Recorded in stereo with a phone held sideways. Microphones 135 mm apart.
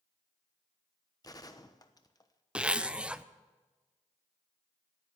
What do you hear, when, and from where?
1.2 s a gunshot: 30° left (ahead or behind), 1.0 m
2.5 s a zipper: 10° right (ahead or behind), 0.6 m